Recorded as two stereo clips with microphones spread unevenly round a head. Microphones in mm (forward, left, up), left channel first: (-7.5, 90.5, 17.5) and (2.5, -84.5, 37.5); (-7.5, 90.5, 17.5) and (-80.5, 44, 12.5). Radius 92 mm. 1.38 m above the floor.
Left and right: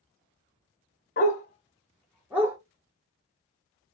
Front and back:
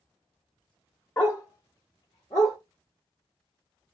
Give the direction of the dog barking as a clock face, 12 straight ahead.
10 o'clock.